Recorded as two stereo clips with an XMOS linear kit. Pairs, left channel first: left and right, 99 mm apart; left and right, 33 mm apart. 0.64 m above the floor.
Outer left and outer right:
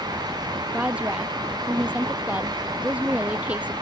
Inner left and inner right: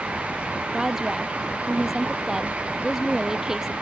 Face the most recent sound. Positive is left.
turn(degrees=-15)  # may be behind; listen again after turning